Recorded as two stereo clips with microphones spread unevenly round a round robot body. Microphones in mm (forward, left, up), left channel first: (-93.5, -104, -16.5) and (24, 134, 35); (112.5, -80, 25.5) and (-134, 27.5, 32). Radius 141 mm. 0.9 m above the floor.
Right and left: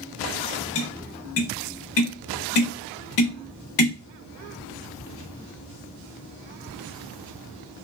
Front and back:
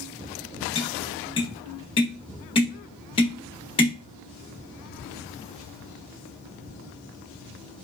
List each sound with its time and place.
0.8 s tapping: 95° right, 0.7 m